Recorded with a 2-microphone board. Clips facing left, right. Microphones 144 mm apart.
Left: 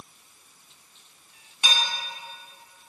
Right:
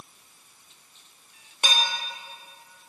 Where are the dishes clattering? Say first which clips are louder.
Right 2 dB; 60° right (ahead or behind), 3.5 m.